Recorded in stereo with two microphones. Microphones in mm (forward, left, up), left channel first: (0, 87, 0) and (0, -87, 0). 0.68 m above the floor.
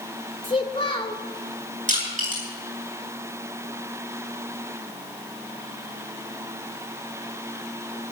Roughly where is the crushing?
Right.